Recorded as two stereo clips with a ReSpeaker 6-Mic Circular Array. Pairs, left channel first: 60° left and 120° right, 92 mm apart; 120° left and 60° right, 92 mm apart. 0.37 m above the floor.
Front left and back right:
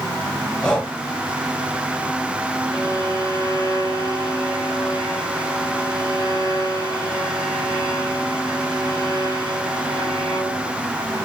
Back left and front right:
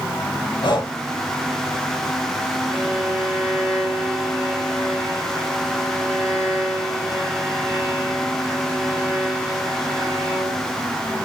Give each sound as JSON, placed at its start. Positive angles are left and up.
{"t": 0.6, "sound": "breathing", "azimuth_deg": 140, "distance_m": 1.1}
{"t": 2.7, "sound": "a violin", "azimuth_deg": -125, "distance_m": 2.5}